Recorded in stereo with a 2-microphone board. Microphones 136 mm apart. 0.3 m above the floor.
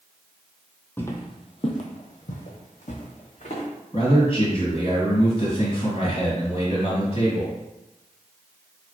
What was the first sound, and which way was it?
Footsteps, 15° left (ahead or behind).